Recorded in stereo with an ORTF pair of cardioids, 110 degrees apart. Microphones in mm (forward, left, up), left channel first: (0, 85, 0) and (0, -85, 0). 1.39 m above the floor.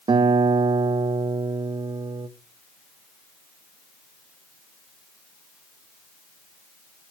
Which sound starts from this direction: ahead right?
A guitar, at 0.1 s.